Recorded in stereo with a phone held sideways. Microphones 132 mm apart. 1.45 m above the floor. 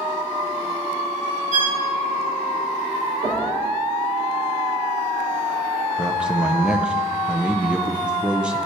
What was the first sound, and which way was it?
A violin, 70° right (ahead or behind).